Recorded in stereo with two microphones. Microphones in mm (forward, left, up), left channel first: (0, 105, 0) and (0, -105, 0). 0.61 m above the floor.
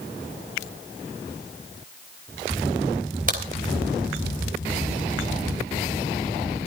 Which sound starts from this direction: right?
A crack, at 3.3 s.